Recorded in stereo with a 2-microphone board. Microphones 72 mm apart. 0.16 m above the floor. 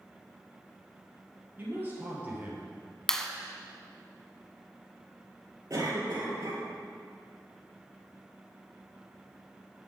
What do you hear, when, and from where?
1.6 s a man speaking: 25° right (ahead or behind), 4 m; by 2.7 s 20° right (ahead or behind), 4 m
3.1 s a clap: 5° left (ahead or behind), 0.9 m
5.7 s a cough: 50° right (ahead or behind), 4 m